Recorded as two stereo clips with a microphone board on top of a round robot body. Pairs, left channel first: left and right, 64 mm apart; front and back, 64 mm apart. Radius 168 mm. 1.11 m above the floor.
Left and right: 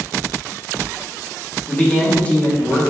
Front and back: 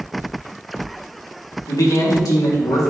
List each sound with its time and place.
1.7 s a man speaking: 20° left, 2.5 m